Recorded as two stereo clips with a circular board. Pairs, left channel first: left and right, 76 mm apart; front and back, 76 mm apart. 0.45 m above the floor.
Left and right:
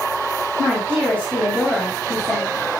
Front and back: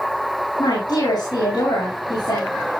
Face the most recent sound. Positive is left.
turn(degrees=25)